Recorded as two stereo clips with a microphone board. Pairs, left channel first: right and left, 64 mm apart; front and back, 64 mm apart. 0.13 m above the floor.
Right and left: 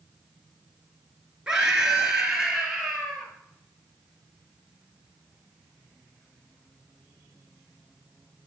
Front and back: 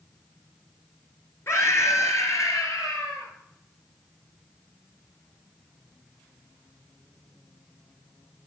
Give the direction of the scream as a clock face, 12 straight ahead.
11 o'clock.